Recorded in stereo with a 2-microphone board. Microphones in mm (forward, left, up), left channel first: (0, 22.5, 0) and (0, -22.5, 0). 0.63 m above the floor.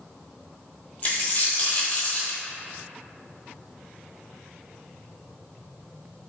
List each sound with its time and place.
1.0 s a dropped coin: 35° left (ahead or behind), 0.9 m